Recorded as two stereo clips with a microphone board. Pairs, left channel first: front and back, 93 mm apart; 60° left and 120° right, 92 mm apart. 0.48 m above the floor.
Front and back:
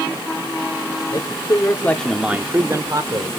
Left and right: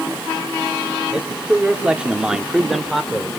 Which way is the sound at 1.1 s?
40° right.